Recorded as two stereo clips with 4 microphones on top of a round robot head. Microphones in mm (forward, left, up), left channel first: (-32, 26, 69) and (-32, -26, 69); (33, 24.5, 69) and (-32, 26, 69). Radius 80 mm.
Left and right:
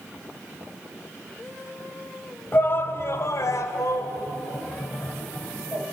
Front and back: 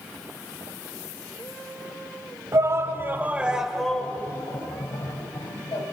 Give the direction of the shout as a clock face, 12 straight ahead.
7 o'clock.